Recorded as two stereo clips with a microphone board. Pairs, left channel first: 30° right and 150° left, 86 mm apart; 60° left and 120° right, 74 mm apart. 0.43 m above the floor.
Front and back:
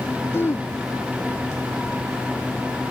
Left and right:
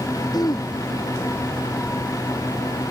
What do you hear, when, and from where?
0.3 s throat clearing: 35° left